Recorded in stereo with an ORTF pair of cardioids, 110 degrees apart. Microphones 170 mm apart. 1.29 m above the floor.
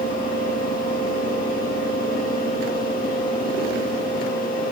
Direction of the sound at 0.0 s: 55° left.